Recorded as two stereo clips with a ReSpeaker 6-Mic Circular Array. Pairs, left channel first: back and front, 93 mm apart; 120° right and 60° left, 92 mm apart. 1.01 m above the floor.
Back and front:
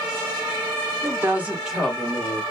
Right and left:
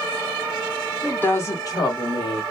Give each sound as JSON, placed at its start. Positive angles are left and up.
{"t": 1.0, "sound": "a woman speaking", "azimuth_deg": -50, "distance_m": 1.1}